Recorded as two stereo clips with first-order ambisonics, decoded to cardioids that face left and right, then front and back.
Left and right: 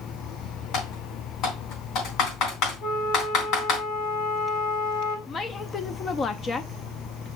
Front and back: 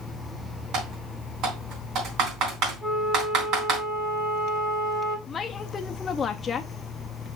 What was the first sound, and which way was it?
Typing on a keyboard, 135° left.